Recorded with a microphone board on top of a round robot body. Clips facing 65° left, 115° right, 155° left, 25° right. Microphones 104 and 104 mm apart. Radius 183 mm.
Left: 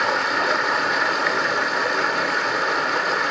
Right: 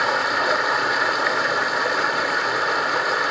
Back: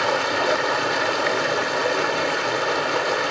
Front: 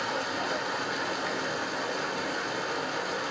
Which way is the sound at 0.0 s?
160° left.